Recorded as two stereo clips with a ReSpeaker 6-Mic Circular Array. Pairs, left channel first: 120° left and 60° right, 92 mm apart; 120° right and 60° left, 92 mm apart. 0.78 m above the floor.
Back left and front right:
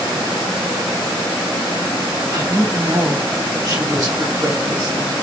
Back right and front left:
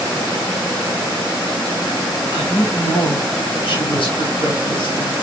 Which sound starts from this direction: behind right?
A woman speaking, at 2.3 s.